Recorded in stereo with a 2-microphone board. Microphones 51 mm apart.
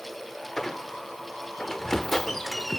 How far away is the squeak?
About 0.5 m.